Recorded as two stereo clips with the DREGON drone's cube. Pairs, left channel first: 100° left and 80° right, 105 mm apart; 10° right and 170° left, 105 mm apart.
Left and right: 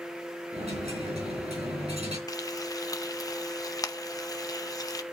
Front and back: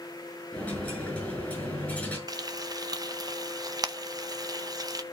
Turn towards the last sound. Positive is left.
turn(degrees=135)